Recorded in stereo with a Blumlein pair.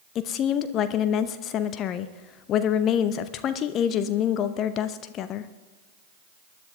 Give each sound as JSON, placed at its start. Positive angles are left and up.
{"t": 0.1, "sound": "a woman speaking", "azimuth_deg": 30, "distance_m": 0.7}